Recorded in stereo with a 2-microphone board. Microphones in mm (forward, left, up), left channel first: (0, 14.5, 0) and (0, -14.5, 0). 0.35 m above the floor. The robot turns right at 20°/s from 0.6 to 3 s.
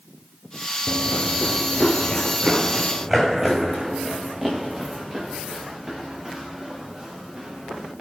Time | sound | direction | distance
0.9 | running footsteps | 50° left (ahead or behind) | 0.6 m